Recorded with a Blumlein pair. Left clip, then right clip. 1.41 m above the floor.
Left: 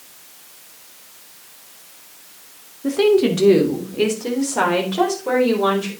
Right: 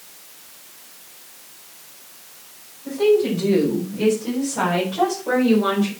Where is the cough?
I don't hear a cough.